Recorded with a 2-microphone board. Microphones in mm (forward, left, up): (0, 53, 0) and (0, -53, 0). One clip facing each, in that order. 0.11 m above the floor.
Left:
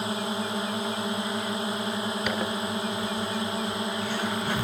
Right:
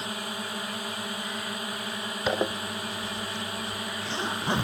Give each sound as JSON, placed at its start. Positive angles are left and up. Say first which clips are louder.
{"t": 0.0, "sound": "a drone", "louder": "left 6 dB", "side_deg": 20}
{"t": 2.3, "sound": "a zipper", "louder": "even", "side_deg": -25}